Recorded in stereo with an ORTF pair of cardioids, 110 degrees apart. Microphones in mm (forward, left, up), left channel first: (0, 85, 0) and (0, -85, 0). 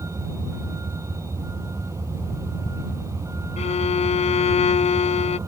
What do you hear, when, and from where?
0.0 s a vehicle: 15° right
3.6 s a violin: 40° left